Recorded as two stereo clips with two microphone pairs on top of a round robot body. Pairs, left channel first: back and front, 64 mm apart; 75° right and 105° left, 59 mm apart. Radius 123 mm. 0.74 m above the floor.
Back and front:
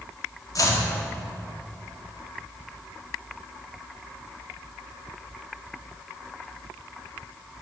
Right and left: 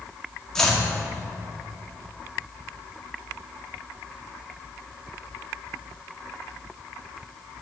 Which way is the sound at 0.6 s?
160° right.